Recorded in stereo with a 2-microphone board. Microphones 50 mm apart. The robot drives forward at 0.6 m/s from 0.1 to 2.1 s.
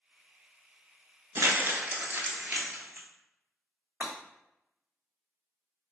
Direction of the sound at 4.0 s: 25° right (ahead or behind).